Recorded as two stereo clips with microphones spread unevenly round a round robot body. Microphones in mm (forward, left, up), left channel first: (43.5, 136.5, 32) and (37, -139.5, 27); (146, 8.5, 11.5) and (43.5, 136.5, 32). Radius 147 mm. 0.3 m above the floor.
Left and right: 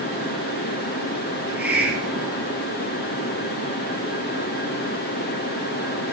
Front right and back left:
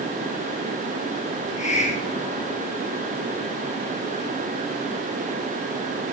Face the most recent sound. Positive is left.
turn(degrees=-5)